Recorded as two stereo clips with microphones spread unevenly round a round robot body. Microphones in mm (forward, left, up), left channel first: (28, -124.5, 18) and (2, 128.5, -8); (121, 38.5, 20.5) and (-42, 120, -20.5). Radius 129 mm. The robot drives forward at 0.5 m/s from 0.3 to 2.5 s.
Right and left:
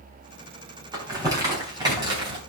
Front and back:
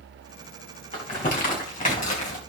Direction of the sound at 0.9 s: 20° left.